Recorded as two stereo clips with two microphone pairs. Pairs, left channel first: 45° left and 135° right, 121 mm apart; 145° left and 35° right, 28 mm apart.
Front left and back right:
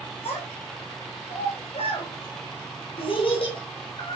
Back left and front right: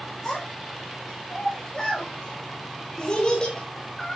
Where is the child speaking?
80° left, 7.5 m; by 4.2 s 85° left, 5 m.